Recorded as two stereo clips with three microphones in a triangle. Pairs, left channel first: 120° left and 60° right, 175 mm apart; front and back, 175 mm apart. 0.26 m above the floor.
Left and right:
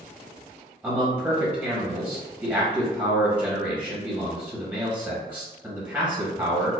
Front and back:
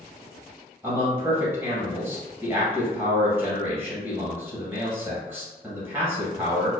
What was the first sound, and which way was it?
A man speaking, 125° right.